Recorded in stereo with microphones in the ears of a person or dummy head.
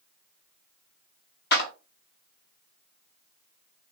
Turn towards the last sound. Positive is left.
turn(degrees=65)  # may be behind; listen again after turning